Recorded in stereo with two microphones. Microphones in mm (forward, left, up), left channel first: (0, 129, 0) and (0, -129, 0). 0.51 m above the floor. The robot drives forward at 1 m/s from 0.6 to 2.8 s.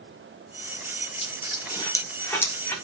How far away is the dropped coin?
About 0.8 m.